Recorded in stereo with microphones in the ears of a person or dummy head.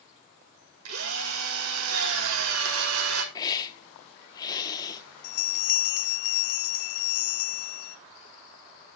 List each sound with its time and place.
0.8 s a drill: 80° right, 1.9 m
3.4 s a hiss: 25° left (ahead or behind), 1.0 m
5.2 s a bell: 45° left (ahead or behind), 0.6 m